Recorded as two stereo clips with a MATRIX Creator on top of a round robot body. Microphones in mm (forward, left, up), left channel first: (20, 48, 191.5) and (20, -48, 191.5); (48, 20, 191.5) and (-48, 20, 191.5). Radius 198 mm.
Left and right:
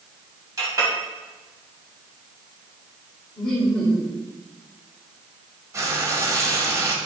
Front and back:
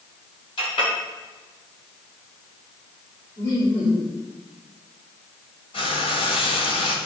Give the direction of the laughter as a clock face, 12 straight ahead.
12 o'clock.